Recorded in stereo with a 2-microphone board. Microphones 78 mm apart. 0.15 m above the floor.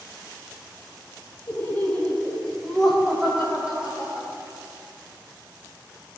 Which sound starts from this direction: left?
Laughter, at 1.5 s.